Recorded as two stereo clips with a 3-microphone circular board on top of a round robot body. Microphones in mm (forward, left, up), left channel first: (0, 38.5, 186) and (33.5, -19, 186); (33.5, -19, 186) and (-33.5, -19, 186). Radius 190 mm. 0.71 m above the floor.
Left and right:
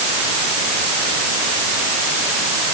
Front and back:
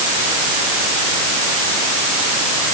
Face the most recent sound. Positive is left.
No sound to turn to.